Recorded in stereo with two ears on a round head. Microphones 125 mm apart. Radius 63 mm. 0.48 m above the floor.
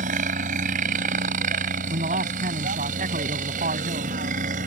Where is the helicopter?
60° right (ahead or behind).